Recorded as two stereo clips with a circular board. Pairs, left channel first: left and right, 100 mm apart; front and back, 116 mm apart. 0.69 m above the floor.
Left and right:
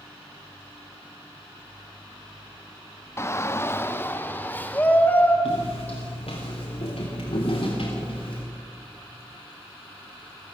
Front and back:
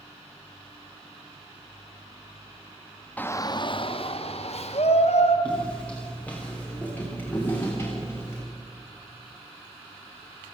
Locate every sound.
3.2 s a shout: 65° left, 0.8 m; by 5.3 s 15° left, 3.5 m
5.5 s footsteps: 80° left, 7.5 m; by 8.4 s 65° left, 7 m